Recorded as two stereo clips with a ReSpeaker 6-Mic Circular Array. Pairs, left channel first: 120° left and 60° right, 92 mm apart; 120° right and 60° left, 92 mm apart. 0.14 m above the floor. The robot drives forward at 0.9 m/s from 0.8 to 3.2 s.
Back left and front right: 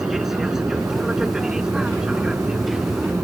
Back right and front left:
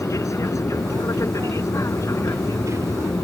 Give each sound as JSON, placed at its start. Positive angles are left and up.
{"t": 0.0, "sound": "an aircraft", "azimuth_deg": -145}